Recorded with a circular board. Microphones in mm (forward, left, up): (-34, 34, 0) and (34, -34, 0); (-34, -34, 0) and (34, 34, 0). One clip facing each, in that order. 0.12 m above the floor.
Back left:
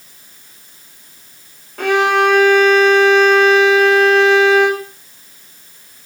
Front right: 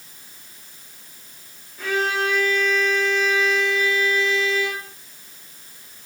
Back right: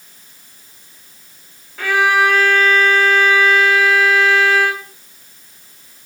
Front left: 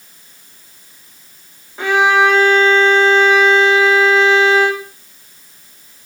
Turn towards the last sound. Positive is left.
turn(degrees=115)